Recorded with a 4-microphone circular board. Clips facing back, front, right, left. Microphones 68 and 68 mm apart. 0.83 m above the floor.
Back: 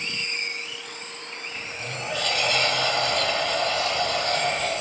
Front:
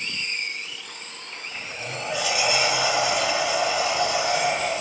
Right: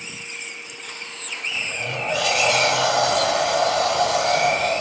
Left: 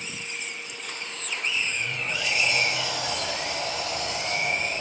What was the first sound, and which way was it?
A sliding door, 80° right.